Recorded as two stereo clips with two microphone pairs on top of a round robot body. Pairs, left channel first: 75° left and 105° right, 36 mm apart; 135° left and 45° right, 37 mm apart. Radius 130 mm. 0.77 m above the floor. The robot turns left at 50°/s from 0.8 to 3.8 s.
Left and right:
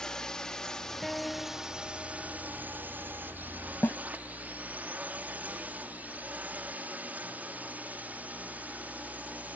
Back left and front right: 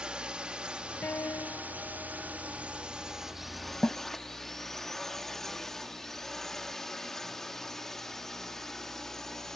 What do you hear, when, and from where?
0.0 s a drone: 10° left; by 9.6 s 145° right
1.0 s a guitar: 170° left; by 2.6 s 90° left
3.8 s a snare drum: 75° left